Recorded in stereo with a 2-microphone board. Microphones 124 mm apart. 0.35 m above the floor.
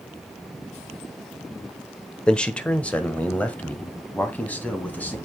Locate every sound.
2.3 s a man speaking: 5° left (ahead or behind), 0.9 m; by 5.2 s 10° left (ahead or behind), 2.5 m